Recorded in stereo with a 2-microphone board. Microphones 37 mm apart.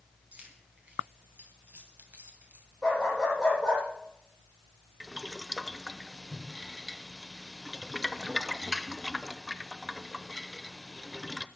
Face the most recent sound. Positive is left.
turn(degrees=-10)  # may be behind; listen again after turning